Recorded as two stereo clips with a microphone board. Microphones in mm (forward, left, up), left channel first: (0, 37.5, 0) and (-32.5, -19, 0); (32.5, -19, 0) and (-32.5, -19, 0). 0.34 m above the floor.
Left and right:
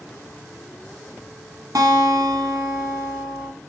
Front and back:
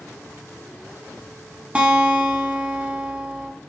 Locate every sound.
1.8 s a guitar: 110° right, 0.6 m